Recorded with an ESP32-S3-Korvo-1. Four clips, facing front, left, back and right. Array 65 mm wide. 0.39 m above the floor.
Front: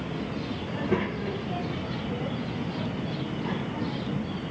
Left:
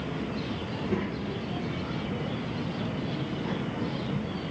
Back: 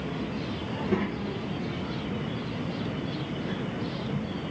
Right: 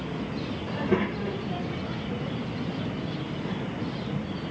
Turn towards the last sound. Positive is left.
turn(degrees=10)